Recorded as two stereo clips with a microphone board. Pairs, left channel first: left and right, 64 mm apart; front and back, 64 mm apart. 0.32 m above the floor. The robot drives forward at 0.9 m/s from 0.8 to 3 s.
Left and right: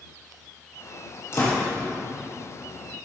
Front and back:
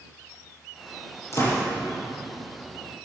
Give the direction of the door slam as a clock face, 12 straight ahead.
11 o'clock.